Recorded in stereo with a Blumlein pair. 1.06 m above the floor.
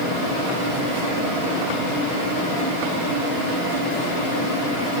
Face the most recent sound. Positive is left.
No sound to turn to.